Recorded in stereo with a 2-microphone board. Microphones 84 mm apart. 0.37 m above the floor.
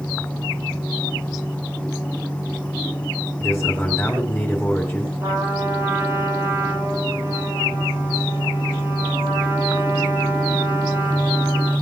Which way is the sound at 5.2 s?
35° right (ahead or behind).